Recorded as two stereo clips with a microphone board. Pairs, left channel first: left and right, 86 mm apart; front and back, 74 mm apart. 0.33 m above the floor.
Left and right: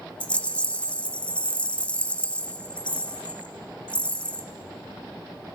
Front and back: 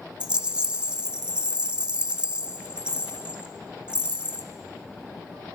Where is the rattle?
130° left, 0.8 m.